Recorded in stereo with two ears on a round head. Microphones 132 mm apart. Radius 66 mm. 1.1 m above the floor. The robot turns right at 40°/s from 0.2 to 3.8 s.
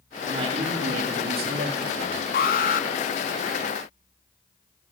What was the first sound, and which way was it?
A man speaking, 145° right.